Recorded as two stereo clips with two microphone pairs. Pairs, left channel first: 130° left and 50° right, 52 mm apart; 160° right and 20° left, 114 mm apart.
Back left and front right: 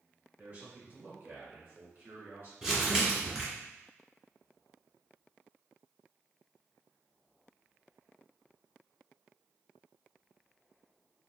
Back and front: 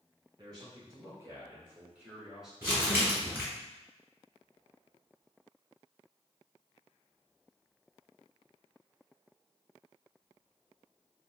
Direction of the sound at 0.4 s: 10° right.